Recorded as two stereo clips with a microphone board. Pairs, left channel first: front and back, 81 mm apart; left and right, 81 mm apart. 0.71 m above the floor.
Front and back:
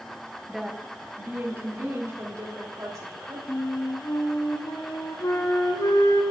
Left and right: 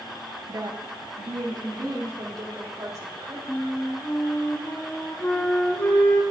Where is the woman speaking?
90° right, 0.7 m; by 3.4 s 130° right, 2.5 m.